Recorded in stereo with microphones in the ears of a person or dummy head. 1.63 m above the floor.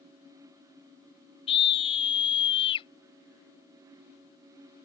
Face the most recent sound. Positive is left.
turn(degrees=25)  # may be behind; listen again after turning